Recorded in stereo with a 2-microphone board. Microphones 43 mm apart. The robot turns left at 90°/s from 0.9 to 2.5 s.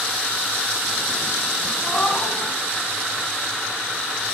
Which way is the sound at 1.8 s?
150° left.